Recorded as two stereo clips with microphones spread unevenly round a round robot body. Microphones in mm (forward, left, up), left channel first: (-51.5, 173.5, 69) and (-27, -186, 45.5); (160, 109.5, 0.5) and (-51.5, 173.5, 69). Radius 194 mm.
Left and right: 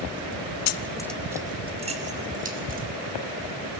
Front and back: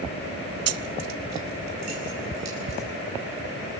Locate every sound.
0.7 s keys jangling: 140° left, 0.6 m; by 2.9 s 155° right, 3.5 m